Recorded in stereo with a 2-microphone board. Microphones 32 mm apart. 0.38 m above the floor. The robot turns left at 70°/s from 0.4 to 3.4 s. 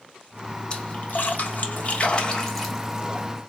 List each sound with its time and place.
0.7 s a splash: 35° left (ahead or behind), 1.4 m; by 3.3 s 35° right (ahead or behind), 1.4 m